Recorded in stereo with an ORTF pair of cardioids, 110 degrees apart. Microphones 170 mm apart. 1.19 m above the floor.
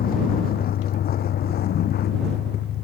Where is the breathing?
No breathing in this recording.